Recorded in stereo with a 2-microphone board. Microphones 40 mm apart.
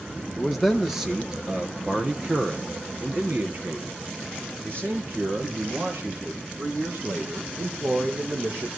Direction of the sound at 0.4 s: Centre (ahead or behind).